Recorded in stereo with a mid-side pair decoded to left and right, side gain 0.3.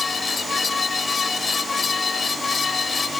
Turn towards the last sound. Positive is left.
turn(degrees=50)